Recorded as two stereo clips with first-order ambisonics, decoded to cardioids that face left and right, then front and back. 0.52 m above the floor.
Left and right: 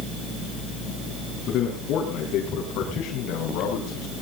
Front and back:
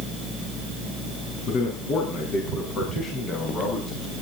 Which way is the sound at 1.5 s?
45° left.